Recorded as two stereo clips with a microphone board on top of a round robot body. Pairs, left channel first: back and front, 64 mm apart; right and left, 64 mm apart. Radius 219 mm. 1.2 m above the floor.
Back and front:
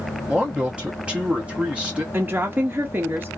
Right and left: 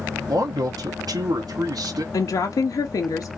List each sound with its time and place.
0.3 s a man speaking: 75° left, 0.7 m
2.1 s a woman speaking: 60° right, 0.6 m